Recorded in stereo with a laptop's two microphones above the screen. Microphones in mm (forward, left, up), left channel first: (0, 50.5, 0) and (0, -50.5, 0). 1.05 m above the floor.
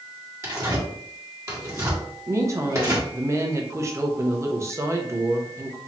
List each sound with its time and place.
0.4 s tearing paper: 30° right (ahead or behind), 1.6 m
2.3 s a woman speaking: 30° right (ahead or behind), 0.9 m